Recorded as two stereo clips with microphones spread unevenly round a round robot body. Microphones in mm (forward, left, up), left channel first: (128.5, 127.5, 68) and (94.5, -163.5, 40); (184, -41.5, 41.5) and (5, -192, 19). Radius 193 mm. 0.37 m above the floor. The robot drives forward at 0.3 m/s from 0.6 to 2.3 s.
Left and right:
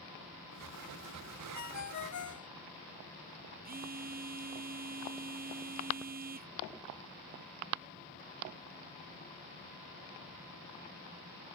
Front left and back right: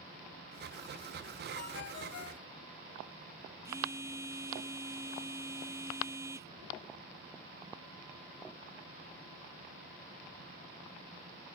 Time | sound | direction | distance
1.5 | a ringtone | 55° left | ?
3.6 | a phone buzzing | 75° right | ?